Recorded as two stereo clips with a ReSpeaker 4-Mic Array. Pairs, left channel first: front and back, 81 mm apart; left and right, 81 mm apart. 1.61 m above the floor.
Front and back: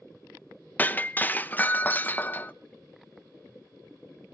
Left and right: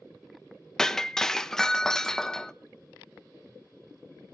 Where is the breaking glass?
20° left, 0.8 m.